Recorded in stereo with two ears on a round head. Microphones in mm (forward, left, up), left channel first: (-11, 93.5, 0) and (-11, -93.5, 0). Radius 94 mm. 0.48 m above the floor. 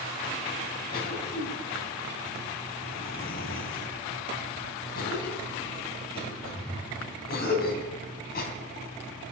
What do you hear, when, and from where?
0.9 s a cough: 50° left (ahead or behind), 3.5 m